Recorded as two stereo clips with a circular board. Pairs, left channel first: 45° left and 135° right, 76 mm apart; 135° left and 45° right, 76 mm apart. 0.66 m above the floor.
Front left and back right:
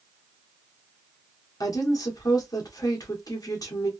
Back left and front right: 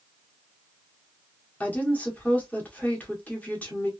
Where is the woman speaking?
65° left, 1.4 m.